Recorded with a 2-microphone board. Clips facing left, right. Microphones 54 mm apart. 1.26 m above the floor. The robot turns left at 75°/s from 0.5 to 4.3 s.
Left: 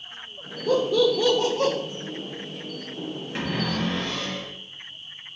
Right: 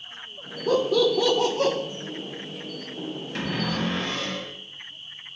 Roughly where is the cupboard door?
Ahead.